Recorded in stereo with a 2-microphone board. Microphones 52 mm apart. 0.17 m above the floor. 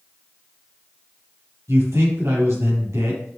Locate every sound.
1.7 s a man speaking: 60° right (ahead or behind), 5 m